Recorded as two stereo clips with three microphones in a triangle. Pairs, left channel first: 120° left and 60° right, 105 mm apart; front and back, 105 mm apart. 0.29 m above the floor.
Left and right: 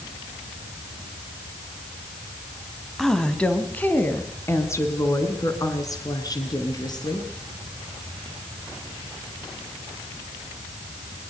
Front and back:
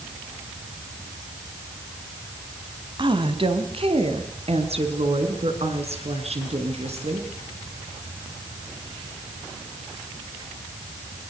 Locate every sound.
3.0 s a woman speaking: 155° right, 2.5 m; by 7.3 s 170° left, 5 m